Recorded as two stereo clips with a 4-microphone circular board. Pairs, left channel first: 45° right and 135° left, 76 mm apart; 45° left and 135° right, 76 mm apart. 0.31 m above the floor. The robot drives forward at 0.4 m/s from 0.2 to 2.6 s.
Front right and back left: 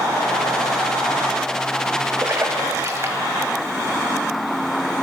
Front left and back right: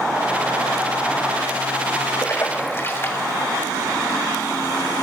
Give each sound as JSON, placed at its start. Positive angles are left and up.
{"t": 2.2, "sound": "a splash", "azimuth_deg": 85, "distance_m": 0.9}